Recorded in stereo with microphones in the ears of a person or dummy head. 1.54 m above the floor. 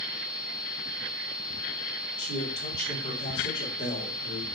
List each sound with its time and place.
2.2 s a man speaking: 30° left (ahead or behind), 3 m